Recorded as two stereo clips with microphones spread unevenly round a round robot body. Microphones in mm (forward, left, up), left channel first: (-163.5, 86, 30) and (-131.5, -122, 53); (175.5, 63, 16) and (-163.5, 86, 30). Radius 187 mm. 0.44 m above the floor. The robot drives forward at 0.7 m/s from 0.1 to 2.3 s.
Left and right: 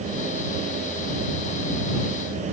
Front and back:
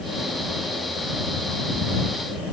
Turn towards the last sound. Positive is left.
No sound to turn to.